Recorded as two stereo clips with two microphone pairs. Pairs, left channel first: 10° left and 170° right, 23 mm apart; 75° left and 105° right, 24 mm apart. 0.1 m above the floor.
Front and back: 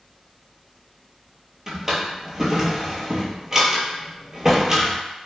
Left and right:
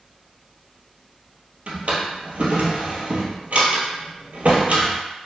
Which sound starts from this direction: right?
A drawer, at 1.7 s.